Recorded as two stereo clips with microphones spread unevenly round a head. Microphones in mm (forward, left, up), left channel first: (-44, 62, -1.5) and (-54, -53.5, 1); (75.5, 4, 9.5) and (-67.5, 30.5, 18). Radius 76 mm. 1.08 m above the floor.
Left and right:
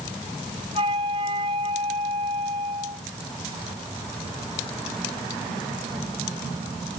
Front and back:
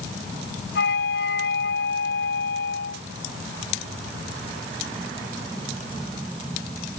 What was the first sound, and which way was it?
A flute, 35° right.